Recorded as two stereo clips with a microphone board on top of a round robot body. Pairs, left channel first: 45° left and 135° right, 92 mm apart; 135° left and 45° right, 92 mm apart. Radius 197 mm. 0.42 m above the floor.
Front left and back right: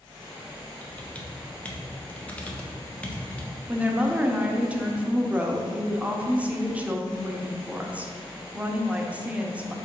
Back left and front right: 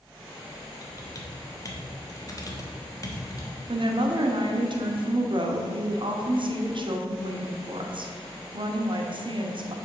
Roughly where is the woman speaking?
Ahead right.